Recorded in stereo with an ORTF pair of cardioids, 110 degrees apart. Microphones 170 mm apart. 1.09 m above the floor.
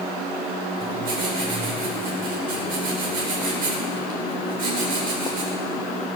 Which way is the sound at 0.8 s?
60° right.